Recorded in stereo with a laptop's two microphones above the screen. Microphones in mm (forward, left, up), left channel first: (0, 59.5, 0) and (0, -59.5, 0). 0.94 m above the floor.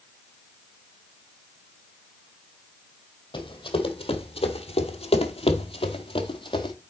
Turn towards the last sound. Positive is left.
turn(degrees=40)  # may be behind; listen again after turning